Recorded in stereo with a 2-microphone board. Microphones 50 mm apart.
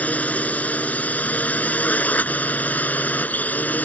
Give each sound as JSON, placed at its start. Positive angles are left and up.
{"t": 0.0, "sound": "a drone", "side_deg": 30}